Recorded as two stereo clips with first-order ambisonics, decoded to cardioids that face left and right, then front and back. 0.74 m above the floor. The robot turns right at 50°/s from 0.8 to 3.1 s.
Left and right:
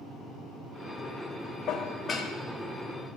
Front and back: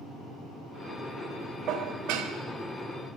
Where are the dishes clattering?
135° left, 0.6 m; by 2.3 s 170° left, 0.6 m.